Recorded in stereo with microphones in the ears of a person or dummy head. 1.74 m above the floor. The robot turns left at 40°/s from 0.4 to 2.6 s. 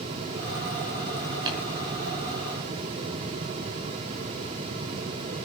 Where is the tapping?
25° right (ahead or behind), 4.5 m; by 1.6 s 30° right (ahead or behind), 4.5 m.